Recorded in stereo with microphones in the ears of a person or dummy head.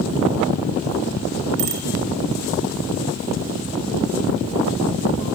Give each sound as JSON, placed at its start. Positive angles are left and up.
{"t": 1.6, "sound": "a bicycle bell", "side_deg": -55, "distance_m": 4.0}